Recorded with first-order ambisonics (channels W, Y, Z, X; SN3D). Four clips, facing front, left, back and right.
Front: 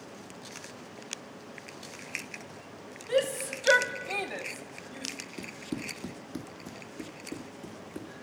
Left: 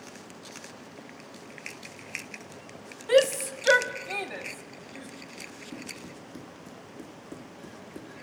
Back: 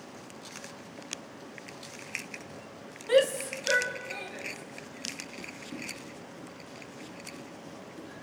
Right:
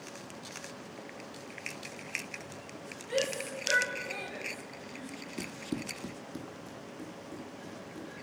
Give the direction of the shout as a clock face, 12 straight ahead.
8 o'clock.